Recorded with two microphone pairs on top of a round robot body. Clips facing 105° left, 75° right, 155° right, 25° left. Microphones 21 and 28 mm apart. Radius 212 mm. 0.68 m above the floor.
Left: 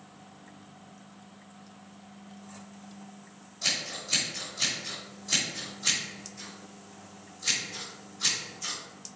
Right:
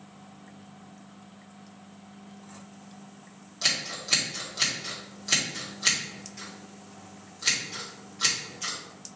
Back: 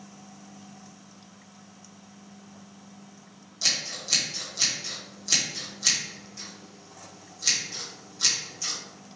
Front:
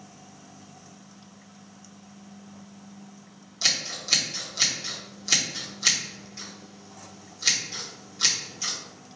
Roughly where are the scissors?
Ahead right.